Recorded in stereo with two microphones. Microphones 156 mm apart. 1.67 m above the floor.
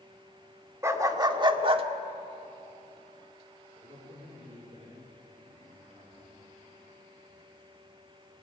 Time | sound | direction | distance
0.8 | a dog barking | 20° right (ahead or behind) | 1.7 m
3.8 | a man speaking | 45° right (ahead or behind) | 5 m